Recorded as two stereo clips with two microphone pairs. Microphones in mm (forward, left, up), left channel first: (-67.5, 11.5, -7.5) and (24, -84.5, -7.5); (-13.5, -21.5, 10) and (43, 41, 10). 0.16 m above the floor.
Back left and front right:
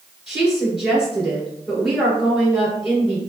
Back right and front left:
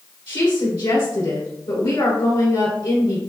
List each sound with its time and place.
0.3 s a woman speaking: 135° right, 2.0 m